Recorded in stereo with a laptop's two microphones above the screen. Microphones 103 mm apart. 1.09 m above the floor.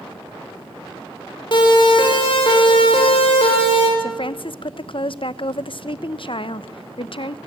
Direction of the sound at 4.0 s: 55° left (ahead or behind).